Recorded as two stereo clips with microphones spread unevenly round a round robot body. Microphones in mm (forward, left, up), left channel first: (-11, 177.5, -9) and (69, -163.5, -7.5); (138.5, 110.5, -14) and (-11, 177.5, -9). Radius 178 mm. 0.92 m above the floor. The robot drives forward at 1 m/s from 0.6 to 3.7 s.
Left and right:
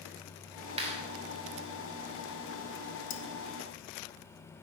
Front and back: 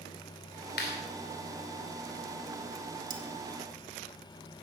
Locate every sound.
0.8 s a clap: 5° right, 2.5 m
3.1 s cutlery clinking: 175° left, 0.6 m